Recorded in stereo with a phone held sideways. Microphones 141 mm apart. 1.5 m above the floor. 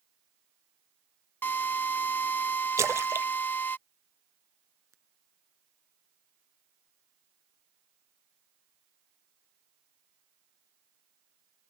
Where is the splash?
20° right (ahead or behind).